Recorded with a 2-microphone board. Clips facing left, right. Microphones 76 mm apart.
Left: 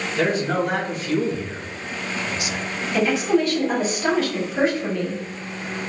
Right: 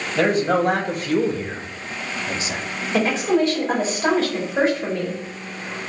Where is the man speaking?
45° right (ahead or behind), 1.4 m; by 2.6 s 20° right (ahead or behind), 0.5 m.